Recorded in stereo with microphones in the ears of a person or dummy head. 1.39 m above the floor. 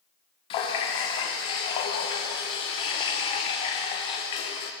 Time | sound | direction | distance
0.5 | a running tap | 30° left (ahead or behind) | 0.5 m